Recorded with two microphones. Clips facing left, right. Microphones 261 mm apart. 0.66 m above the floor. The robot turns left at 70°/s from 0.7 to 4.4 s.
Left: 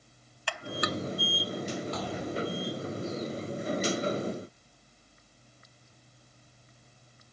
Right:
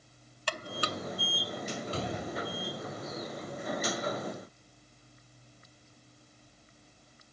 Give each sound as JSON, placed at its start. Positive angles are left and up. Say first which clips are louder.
{"t": 0.5, "sound": "a buzzer", "louder": "left 3 dB", "side_deg": -40}
{"t": 1.9, "sound": "a gunshot", "louder": "left 2 dB", "azimuth_deg": -150}